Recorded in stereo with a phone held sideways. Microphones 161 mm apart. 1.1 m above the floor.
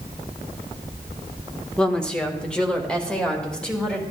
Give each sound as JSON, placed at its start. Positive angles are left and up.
{"t": 1.8, "sound": "a woman speaking", "side_deg": 5, "distance_m": 1.2}